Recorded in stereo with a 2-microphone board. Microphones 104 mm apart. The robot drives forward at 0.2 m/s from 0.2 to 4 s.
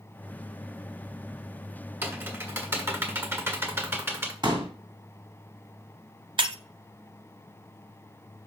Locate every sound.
2.0 s typing on a keyboard: 20° right (ahead or behind), 1.5 m; by 4.3 s 25° right (ahead or behind), 1.4 m
4.4 s a pop: 45° right (ahead or behind), 2.5 m
6.4 s breaking glass: 55° right (ahead or behind), 0.7 m